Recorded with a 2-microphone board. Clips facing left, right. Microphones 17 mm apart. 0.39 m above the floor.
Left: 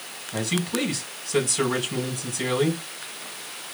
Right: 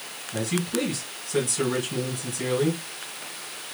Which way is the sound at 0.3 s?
25° left (ahead or behind).